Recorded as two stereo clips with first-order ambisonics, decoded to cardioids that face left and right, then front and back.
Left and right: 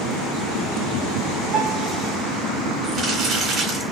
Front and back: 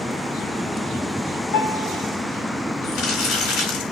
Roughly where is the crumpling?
Ahead right.